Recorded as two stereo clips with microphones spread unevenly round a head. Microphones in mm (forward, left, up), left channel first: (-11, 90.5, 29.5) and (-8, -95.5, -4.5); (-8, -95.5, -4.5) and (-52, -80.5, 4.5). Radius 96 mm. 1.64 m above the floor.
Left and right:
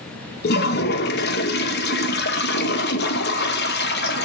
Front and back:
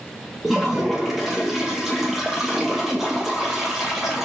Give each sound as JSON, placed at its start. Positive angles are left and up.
{"t": 0.4, "sound": "a toilet flushing", "azimuth_deg": 80, "distance_m": 0.8}